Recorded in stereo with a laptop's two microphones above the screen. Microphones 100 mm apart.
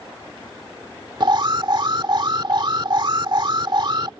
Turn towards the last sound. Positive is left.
turn(degrees=-50)  # may be behind; listen again after turning